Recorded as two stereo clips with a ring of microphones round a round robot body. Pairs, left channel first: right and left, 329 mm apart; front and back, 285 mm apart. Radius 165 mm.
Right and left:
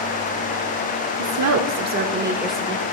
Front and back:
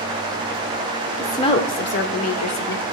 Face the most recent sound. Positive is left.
turn(degrees=-10)